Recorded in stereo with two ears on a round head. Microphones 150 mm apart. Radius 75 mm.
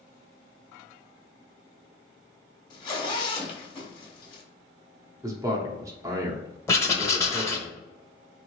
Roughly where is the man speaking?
Right.